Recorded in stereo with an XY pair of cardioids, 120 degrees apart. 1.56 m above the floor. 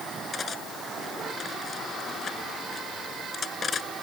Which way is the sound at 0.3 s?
35° left.